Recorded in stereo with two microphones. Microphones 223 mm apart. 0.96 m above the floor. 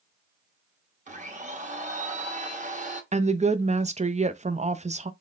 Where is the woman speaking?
30° right (ahead or behind), 0.6 m.